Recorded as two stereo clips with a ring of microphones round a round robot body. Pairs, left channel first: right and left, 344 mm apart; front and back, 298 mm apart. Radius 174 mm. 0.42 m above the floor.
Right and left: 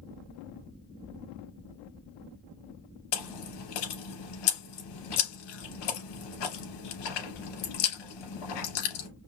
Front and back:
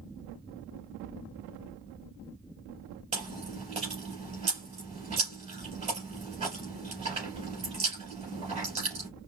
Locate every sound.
3.1 s chewing: 105° right, 3 m